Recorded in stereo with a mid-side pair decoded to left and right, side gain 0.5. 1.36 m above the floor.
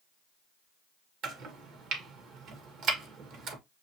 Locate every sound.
1.2 s chopping: 70° right, 1.4 m